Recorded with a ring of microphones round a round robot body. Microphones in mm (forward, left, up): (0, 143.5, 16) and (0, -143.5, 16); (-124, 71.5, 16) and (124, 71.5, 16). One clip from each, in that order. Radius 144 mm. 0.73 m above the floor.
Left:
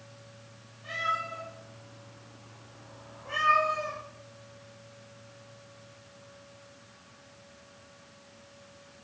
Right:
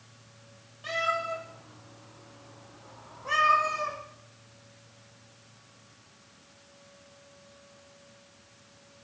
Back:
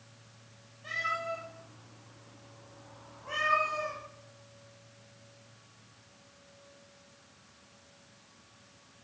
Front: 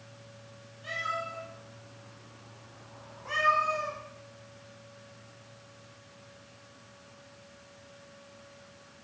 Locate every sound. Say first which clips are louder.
0.8 s a cat meowing: right 2 dB, back 1 dB; 65° right, 8 m; by 4.0 s 50° right, 10 m